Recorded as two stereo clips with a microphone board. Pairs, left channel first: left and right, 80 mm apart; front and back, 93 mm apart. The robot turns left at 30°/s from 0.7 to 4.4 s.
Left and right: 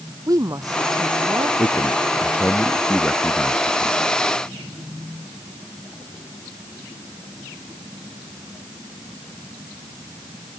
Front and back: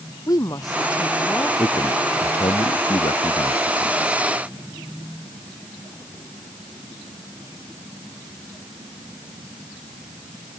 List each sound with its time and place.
0.3 s a woman speaking: 45° right; by 1.5 s 70° right
1.6 s a man speaking: 55° left; by 4.1 s 20° right